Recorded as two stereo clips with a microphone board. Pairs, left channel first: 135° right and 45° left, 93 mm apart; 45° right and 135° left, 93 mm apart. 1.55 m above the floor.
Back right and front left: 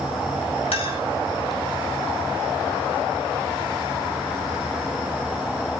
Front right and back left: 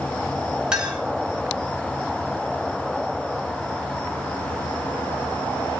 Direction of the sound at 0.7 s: 145° right.